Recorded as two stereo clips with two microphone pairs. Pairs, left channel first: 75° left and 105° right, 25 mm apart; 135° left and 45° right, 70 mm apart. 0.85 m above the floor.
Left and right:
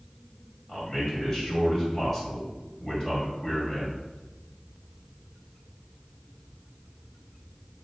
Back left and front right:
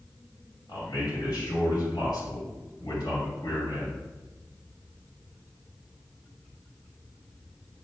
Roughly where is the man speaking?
Behind left.